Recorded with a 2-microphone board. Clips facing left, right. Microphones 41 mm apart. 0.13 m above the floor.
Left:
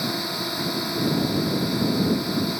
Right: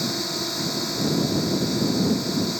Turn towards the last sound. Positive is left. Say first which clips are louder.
# even
turn(degrees=10)  # may be behind; listen again after turning